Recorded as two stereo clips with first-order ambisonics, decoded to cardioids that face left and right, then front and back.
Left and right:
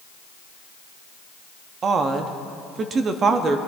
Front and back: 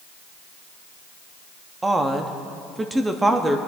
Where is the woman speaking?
110° right, 0.5 m.